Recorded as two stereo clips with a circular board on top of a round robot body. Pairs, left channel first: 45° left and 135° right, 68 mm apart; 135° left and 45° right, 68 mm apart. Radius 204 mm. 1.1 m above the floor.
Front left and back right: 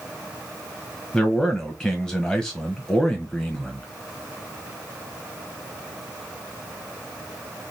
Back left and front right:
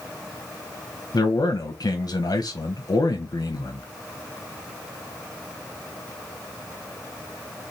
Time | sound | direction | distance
1.1 | a man speaking | 125° left | 0.8 m